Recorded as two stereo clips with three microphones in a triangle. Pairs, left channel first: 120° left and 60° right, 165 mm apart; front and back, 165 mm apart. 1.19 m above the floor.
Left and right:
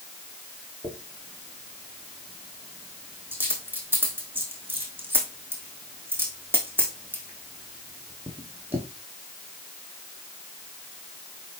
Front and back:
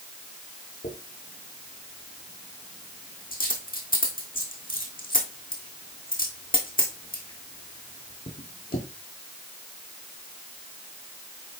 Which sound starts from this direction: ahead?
A dropped coin, at 0.8 s.